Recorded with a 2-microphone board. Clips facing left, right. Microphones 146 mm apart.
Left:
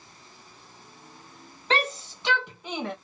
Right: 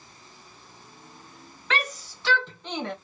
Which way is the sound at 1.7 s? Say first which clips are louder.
Left 3 dB; 30° left (ahead or behind).